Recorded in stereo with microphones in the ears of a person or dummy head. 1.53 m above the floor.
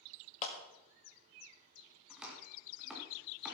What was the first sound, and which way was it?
A clap, 40° left (ahead or behind).